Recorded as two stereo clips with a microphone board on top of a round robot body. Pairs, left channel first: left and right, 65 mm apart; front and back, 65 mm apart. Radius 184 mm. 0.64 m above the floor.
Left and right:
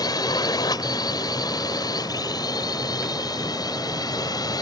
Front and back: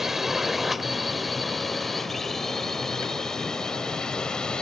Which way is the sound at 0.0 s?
95° left.